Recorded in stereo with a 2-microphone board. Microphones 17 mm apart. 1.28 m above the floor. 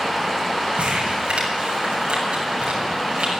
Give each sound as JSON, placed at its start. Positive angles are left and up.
{"t": 0.8, "sound": "crumpling", "side_deg": -85, "distance_m": 7.5}